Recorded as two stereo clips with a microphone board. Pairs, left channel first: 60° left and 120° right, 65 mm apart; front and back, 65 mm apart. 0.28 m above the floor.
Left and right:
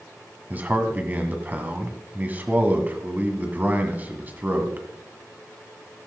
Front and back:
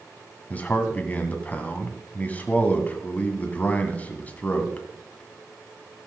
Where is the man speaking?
60° right, 1.7 m.